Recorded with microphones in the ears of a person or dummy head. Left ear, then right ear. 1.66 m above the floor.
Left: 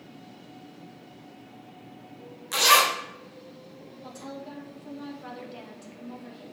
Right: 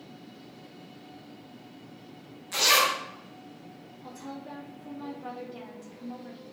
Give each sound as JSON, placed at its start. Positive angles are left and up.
{"t": 2.5, "sound": "a zipper", "side_deg": 30, "distance_m": 1.0}
{"t": 4.0, "sound": "a woman speaking", "side_deg": 25, "distance_m": 2.0}